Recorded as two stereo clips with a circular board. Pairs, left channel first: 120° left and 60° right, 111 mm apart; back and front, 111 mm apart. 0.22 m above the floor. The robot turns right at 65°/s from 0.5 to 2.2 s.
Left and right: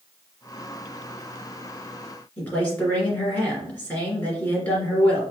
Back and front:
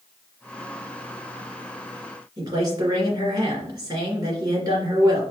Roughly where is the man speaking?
Ahead left.